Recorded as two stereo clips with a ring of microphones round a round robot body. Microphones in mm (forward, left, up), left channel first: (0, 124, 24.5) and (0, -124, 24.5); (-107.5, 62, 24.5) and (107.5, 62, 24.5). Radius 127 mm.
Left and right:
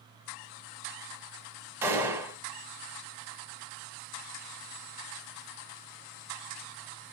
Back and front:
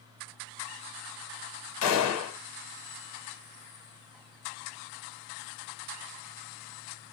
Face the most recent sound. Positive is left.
turn(degrees=-170)